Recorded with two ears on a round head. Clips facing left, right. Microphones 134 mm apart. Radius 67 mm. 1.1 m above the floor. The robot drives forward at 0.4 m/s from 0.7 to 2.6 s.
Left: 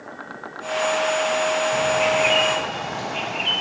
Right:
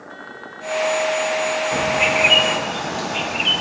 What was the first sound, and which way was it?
A bird, 60° right (ahead or behind).